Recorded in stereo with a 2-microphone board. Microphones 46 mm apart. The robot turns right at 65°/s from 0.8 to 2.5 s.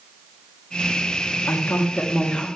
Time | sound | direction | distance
1.5 | a woman speaking | 95° left | 1.5 m